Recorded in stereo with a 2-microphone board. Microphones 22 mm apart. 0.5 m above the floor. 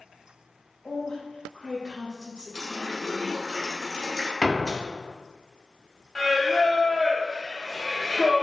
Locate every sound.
0.8 s a woman speaking: 40° left (ahead or behind), 1.9 m
2.5 s a running tap: 15° left (ahead or behind), 1.6 m
4.4 s a door slam: 30° left (ahead or behind), 0.6 m
6.2 s singing: 20° left (ahead or behind), 0.8 m